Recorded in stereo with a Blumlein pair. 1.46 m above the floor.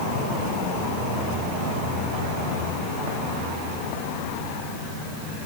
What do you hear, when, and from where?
Only background noise.